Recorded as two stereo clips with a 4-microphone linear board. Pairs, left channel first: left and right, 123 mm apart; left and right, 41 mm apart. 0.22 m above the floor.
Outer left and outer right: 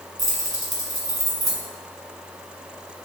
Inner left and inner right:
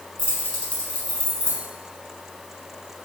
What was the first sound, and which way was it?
Keys jangling, 30° left (ahead or behind).